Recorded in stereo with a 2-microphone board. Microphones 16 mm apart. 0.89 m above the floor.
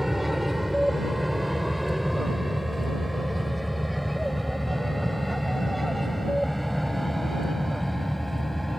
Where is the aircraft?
10° right (ahead or behind); by 8.8 s 10° left (ahead or behind).